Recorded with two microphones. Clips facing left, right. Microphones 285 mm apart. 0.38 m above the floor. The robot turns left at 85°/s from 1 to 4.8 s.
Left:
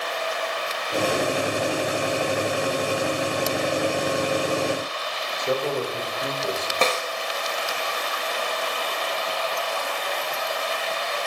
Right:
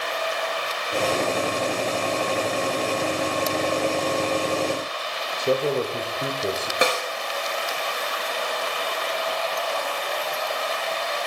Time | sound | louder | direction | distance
5.4 | a man speaking | right 3 dB | 35° right (ahead or behind) | 1.4 m
6.8 | a snare drum | right 1 dB | 15° right (ahead or behind) | 1.7 m